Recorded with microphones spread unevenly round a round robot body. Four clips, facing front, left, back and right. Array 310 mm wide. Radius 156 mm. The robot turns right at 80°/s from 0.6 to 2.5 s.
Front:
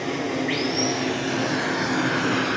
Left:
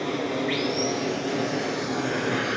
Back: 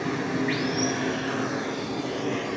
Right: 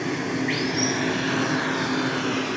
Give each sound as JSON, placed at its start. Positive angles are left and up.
{"t": 0.0, "sound": "running water", "azimuth_deg": -145, "distance_m": 1.9}